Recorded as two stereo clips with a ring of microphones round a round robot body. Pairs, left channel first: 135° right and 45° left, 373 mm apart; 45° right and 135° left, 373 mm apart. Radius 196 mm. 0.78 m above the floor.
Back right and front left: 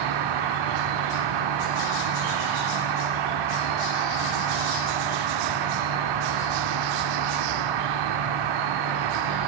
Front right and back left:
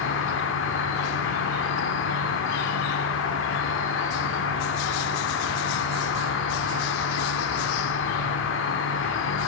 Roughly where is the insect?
Ahead.